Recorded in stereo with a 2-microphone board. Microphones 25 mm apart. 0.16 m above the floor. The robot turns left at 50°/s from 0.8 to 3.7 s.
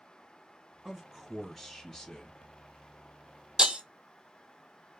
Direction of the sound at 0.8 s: 145° right.